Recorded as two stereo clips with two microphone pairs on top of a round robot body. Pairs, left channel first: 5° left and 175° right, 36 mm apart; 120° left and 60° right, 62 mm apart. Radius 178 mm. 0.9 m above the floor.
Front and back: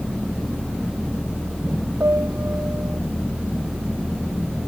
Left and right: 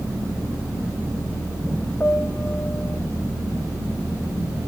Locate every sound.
2.0 s a piano: straight behind